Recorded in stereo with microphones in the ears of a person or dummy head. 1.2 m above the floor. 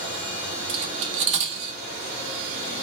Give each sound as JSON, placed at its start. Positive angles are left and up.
{"t": 0.7, "sound": "cutlery clinking", "side_deg": -40, "distance_m": 0.6}